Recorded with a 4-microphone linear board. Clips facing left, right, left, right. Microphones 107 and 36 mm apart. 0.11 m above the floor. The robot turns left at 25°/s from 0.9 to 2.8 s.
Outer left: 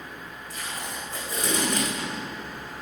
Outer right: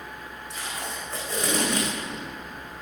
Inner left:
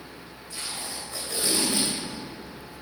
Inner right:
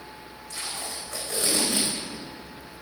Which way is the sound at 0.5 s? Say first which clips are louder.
Outer right 1 dB, inner right 1 dB; 80° right.